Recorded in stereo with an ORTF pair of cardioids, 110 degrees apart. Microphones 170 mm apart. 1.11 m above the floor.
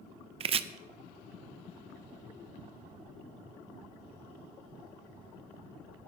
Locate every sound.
0.4 s chopping: 35° right, 0.6 m